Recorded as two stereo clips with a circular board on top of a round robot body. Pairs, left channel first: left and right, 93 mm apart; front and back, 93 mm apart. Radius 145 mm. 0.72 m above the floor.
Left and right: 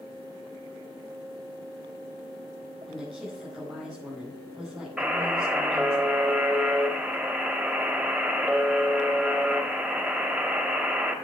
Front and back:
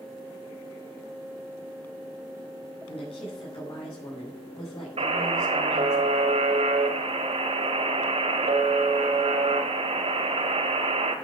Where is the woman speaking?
5° left, 6 m.